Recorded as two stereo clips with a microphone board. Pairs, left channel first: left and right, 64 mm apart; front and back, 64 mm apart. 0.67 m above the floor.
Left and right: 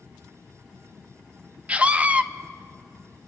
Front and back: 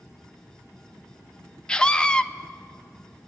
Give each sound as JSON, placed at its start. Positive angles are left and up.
{"t": 1.7, "sound": "a scream", "azimuth_deg": -55, "distance_m": 0.7}